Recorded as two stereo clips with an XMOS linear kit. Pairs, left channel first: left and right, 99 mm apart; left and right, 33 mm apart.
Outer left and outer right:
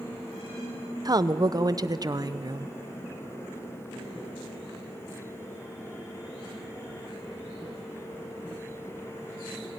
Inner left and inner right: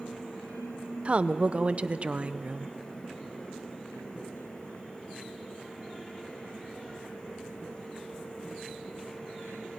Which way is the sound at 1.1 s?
40° right (ahead or behind).